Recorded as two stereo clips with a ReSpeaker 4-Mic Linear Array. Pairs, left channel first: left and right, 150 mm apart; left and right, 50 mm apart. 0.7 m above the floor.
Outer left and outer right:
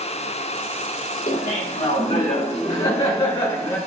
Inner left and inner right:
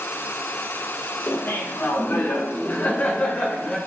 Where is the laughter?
60° left (ahead or behind), 2 m; by 3.8 s 25° left (ahead or behind), 1.2 m.